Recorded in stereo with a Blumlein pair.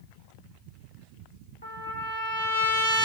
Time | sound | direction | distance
1.6 | a trumpet | 65° left | 0.9 m